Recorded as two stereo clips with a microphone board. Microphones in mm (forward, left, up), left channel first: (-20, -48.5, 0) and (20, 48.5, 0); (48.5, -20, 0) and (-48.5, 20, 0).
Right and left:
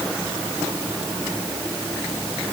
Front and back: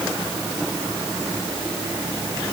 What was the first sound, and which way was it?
Only background noise.